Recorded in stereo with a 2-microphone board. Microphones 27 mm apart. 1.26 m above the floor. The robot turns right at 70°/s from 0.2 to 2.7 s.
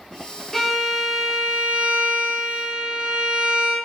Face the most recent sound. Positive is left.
turn(degrees=-45)